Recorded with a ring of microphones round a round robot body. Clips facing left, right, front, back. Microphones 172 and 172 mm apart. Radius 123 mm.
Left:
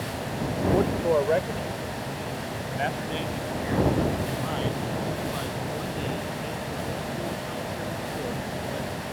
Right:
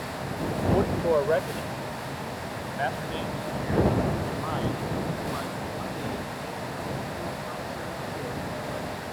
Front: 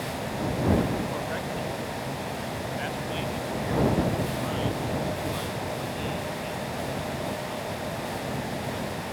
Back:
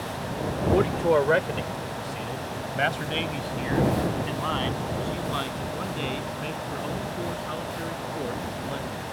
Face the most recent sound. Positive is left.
turn(degrees=160)